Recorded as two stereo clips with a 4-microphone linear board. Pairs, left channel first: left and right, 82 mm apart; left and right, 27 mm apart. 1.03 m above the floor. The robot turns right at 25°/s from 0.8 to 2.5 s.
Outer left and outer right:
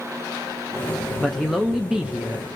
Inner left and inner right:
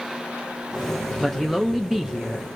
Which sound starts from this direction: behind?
A man speaking, at 1.2 s.